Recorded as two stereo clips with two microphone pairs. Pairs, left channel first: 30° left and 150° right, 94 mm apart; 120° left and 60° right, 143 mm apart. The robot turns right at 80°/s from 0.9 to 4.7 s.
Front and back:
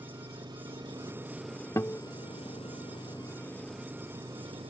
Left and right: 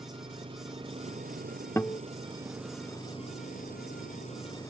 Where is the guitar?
60° left; by 2.0 s 80° left.